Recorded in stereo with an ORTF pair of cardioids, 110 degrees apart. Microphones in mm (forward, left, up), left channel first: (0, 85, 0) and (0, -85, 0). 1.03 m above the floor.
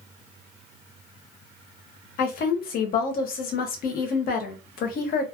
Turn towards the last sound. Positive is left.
turn(degrees=60)